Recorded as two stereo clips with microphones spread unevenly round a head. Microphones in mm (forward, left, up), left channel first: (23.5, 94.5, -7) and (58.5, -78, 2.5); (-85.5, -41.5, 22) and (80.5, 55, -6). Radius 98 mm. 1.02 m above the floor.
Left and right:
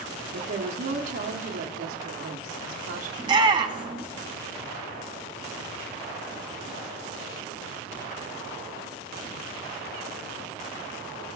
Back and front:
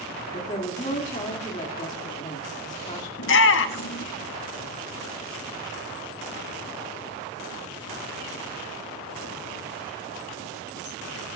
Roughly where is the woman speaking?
Right.